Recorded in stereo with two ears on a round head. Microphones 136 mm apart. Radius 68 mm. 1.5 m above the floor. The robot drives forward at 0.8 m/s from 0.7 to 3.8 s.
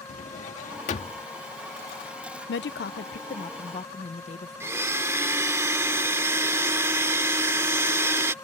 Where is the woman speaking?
85° left; by 4.8 s 45° left (ahead or behind).